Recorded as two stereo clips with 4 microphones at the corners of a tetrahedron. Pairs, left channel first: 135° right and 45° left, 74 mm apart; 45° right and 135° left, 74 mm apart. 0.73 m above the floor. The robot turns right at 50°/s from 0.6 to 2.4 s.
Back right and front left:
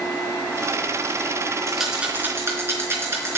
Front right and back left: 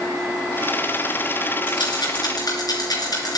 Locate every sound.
1.7 s a rattle: 50° right, 3.5 m; by 3.4 s 10° right, 3.5 m